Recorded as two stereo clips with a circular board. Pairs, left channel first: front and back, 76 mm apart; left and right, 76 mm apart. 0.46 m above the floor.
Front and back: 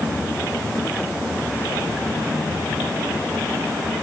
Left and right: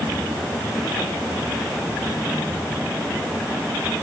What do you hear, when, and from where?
Only background noise.